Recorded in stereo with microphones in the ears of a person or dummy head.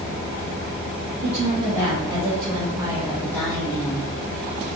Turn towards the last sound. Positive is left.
turn(degrees=25)  # may be behind; listen again after turning